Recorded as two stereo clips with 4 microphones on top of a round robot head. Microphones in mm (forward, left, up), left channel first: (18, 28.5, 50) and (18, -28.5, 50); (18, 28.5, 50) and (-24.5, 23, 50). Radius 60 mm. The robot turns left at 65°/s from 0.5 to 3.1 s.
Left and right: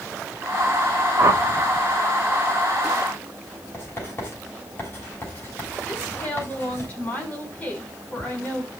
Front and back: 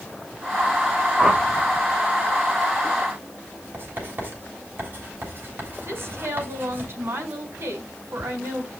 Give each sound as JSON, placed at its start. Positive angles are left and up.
{"t": 1.2, "sound": "a whoosh", "azimuth_deg": -95, "distance_m": 1.8}
{"t": 3.7, "sound": "writing", "azimuth_deg": 140, "distance_m": 7.5}
{"t": 5.8, "sound": "a woman speaking", "azimuth_deg": 155, "distance_m": 5.5}